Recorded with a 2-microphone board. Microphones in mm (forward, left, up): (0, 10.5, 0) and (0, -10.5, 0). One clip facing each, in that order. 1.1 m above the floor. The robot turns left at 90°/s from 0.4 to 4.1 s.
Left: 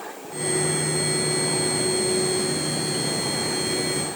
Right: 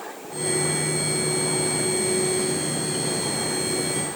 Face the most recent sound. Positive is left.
No sound to turn to.